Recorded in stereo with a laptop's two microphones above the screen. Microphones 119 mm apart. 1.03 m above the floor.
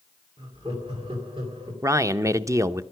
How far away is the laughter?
About 2.5 m.